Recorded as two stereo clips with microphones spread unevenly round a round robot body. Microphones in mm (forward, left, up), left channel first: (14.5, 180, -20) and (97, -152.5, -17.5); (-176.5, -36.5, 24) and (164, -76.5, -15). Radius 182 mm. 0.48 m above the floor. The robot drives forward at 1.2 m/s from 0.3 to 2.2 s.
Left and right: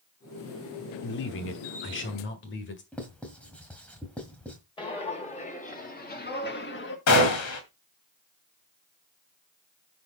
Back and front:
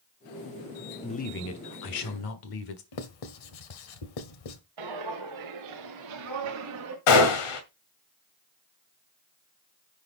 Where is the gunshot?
155° left, 2 m.